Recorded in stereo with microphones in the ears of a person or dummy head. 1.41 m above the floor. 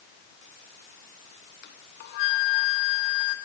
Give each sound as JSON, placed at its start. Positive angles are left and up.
{"t": 1.6, "sound": "a flute", "side_deg": 60, "distance_m": 2.5}